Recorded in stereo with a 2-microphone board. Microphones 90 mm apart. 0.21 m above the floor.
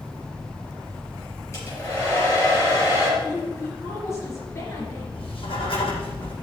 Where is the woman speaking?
30° left (ahead or behind), 3.5 m.